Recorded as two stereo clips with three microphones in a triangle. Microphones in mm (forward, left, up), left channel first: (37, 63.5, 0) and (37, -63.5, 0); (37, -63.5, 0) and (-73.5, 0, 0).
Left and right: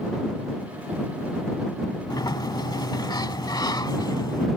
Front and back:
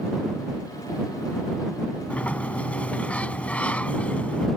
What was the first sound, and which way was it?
A sliding door, 45° left.